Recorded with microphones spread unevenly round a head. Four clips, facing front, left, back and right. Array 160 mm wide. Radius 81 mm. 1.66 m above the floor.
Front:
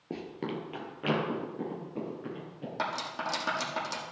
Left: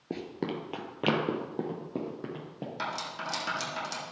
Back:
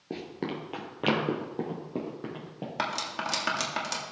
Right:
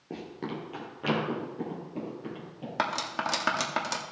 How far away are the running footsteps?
About 1.7 m.